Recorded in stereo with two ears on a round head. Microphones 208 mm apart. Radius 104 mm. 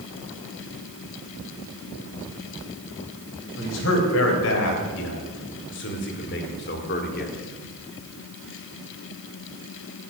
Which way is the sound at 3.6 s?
60° left (ahead or behind).